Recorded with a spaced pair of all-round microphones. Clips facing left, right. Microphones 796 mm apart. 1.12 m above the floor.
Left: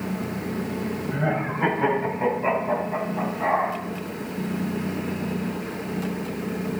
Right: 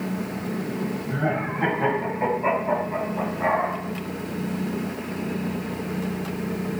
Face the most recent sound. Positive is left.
turn(degrees=-15)  # may be behind; listen again after turning